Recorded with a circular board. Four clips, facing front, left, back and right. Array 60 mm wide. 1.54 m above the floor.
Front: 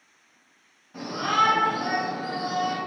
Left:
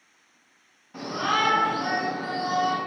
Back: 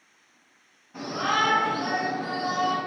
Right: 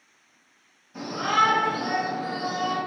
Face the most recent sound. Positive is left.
turn(degrees=90)